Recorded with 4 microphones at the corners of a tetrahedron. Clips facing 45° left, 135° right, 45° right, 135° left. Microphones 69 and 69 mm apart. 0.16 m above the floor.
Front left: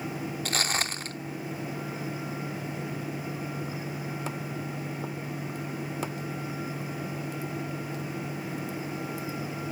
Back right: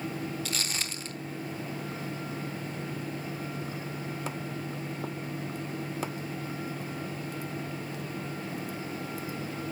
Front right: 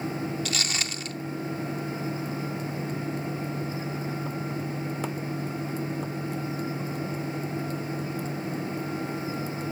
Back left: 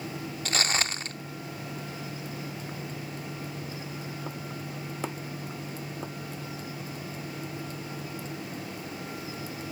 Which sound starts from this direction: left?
Footsteps, at 0.5 s.